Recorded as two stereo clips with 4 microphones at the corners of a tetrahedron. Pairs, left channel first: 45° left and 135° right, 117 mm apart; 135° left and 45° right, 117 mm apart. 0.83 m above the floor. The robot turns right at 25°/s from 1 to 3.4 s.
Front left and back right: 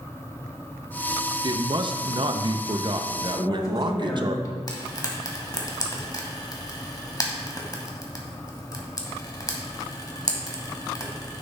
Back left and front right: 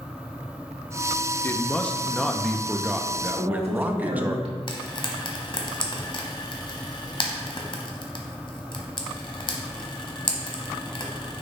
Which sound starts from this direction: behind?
A man speaking, at 1.4 s.